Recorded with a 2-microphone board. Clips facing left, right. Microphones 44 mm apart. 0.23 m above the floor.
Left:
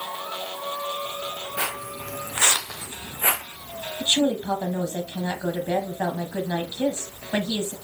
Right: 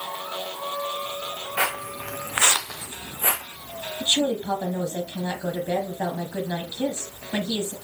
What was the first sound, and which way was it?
Footsteps, 70° right (ahead or behind).